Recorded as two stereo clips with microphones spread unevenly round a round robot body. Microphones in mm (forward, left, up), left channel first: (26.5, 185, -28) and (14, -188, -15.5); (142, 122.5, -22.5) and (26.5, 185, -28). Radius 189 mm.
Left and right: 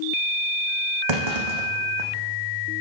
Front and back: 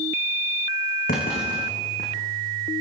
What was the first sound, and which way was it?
A clunk, 75° right.